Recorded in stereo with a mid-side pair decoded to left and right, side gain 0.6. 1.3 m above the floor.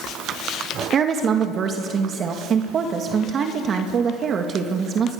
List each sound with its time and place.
0.9 s a woman speaking: 45° right, 2 m